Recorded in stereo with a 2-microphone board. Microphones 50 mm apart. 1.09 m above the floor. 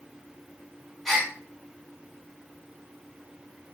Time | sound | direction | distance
1.1 | a gasp | centre (ahead or behind) | 1.3 m